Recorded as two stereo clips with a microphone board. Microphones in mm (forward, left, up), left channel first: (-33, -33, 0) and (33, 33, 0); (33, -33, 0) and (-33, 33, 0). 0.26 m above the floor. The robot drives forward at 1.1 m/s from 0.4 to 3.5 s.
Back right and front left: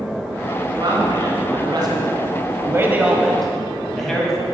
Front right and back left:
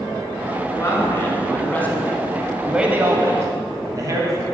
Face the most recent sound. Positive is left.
turn(degrees=140)